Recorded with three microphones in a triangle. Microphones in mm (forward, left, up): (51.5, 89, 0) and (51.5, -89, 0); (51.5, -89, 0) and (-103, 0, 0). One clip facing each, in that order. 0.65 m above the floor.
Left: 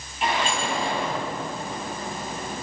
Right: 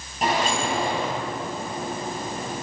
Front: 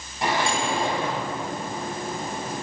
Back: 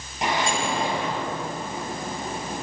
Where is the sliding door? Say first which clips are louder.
Right 2 dB, front 1 dB; 140° right, 9 m.